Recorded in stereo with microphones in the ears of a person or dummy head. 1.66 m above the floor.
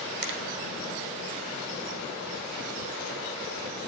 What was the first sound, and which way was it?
A finger snap, 60° right (ahead or behind).